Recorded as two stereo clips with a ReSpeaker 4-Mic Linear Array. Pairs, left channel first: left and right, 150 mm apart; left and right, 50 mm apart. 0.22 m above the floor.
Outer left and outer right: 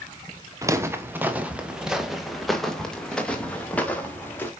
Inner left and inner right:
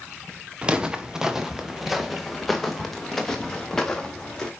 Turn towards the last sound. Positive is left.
turn(degrees=15)  # may be behind; listen again after turning